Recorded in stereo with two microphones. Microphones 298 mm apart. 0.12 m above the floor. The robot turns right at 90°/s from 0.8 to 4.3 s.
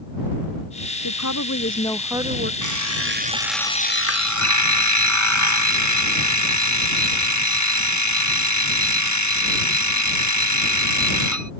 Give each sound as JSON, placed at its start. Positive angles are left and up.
{"t": 1.0, "sound": "a woman speaking", "azimuth_deg": 90}
{"t": 2.6, "sound": "an alarm clock", "azimuth_deg": -85}